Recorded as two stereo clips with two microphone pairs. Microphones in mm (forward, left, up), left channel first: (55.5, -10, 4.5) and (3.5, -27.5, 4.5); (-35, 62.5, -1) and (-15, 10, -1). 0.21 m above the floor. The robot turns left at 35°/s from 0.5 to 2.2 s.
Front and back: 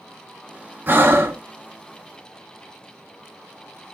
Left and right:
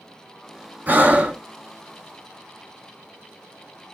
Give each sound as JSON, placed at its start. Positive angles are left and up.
{"t": 0.9, "sound": "breathing", "azimuth_deg": -120, "distance_m": 0.9}